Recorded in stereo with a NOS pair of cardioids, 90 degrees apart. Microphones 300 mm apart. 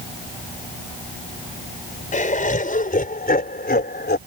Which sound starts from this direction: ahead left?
Laughter, at 2.1 s.